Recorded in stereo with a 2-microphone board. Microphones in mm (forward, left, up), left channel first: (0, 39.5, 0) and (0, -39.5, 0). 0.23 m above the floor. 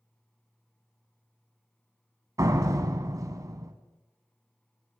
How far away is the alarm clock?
No alarm clock in this recording.